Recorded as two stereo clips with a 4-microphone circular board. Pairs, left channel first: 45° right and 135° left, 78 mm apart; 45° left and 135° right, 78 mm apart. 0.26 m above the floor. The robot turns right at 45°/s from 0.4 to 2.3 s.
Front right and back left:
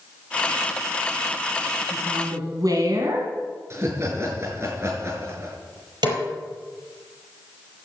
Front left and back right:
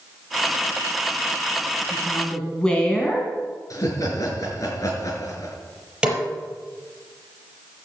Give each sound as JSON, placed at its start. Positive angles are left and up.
{"t": 1.9, "sound": "a woman speaking", "azimuth_deg": 100, "distance_m": 2.5}
{"t": 3.7, "sound": "laughter", "azimuth_deg": 85, "distance_m": 4.5}
{"t": 6.0, "sound": "a snare drum", "azimuth_deg": 150, "distance_m": 5.0}